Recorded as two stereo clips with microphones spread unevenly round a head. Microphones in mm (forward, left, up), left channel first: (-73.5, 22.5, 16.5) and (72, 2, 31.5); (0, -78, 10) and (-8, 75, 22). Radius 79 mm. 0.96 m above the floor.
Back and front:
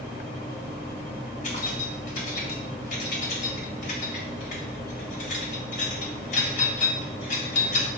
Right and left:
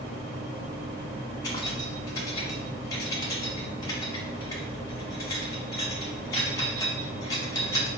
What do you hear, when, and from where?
1.4 s keys jangling: 155° right, 2.0 m